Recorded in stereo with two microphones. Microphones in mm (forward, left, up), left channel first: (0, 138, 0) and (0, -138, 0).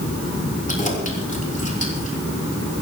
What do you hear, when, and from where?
0.7 s keys jangling: 30° left (ahead or behind), 4.5 m